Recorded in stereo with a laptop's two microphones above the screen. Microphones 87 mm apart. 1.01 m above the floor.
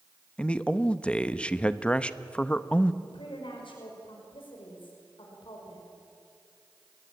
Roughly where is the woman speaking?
Left.